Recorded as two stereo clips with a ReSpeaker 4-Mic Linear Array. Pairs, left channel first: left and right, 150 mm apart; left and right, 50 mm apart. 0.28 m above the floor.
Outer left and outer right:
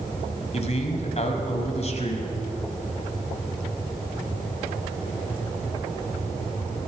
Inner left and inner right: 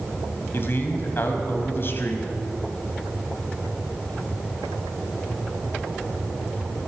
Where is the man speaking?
50° left (ahead or behind), 1.7 m.